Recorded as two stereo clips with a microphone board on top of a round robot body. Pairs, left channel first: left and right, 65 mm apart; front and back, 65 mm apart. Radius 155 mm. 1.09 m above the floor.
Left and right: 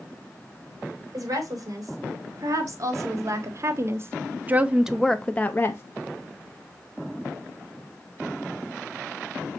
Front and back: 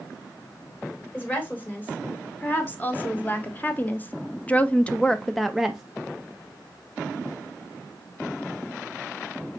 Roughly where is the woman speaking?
Ahead right.